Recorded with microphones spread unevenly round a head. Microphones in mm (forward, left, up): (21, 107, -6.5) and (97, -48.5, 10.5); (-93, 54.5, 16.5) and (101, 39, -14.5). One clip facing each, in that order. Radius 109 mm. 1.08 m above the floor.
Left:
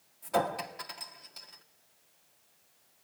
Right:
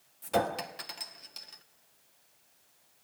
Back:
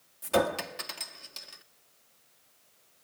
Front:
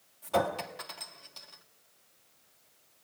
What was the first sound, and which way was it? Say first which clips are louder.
A clink: right 1 dB, back 3 dB; 125° right.